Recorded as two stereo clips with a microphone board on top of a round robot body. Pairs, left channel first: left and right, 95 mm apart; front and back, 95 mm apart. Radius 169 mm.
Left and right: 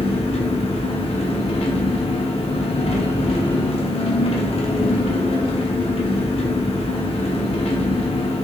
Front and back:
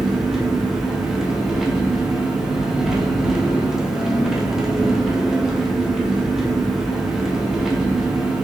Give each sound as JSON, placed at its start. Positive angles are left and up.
{"t": 0.0, "sound": "an engine running", "azimuth_deg": 95, "distance_m": 0.8}